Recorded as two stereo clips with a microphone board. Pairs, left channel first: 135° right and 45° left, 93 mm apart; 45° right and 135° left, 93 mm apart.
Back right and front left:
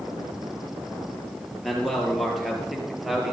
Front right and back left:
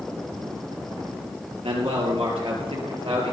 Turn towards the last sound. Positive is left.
turn(degrees=130)